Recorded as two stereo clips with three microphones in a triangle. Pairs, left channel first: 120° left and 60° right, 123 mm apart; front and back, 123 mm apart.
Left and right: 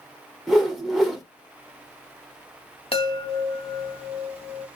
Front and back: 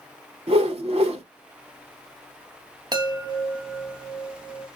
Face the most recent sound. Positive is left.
turn(degrees=140)